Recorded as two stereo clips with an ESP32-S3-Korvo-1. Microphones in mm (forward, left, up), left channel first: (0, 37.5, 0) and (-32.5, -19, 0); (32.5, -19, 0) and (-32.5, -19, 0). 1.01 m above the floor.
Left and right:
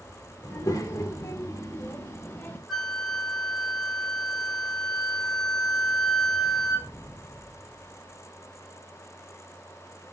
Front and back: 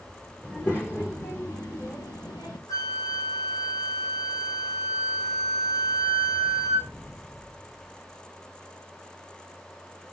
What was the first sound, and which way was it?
A child speaking, 60° left.